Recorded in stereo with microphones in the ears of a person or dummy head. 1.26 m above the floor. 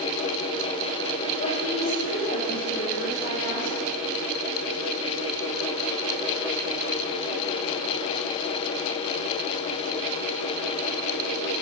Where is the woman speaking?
65° left (ahead or behind), 3.5 m.